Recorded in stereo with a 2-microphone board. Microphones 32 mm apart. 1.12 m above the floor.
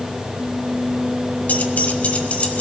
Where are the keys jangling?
55° left (ahead or behind), 1.0 m; by 2.6 s 50° left (ahead or behind), 1.9 m.